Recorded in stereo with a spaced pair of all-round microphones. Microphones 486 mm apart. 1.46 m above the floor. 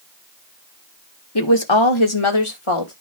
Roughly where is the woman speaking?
Left.